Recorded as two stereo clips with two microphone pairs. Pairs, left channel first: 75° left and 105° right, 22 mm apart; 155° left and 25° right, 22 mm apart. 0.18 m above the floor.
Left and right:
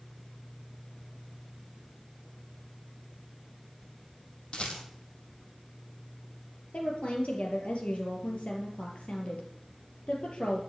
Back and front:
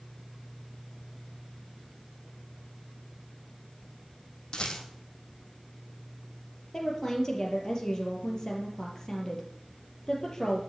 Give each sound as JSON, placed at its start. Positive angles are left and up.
{"t": 4.5, "sound": "a rattle", "azimuth_deg": 110, "distance_m": 3.0}
{"t": 6.7, "sound": "a woman speaking", "azimuth_deg": 90, "distance_m": 4.5}